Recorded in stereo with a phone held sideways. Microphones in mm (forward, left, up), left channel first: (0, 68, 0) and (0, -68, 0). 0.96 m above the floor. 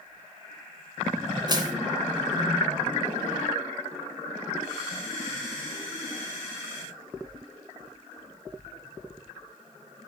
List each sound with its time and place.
1.5 s crushing: 30° right (ahead or behind), 2.5 m